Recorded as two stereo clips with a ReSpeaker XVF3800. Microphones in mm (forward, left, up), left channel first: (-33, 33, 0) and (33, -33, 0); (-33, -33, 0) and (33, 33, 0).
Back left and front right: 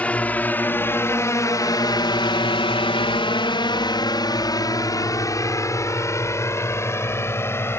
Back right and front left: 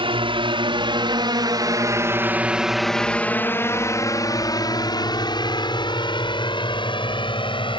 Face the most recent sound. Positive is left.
turn(degrees=-160)